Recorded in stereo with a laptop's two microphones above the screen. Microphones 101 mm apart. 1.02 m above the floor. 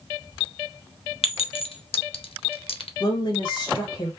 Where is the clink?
70° left (ahead or behind), 0.8 m.